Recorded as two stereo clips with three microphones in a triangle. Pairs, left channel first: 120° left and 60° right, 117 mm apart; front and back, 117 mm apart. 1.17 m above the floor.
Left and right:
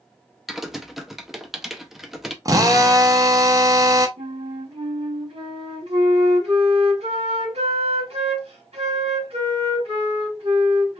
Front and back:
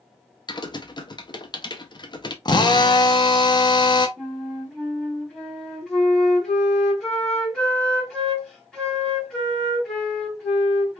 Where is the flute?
90° right, 1.8 m.